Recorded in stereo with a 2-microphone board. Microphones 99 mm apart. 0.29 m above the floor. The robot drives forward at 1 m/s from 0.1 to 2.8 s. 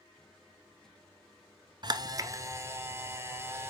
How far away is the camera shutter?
About 1.0 m.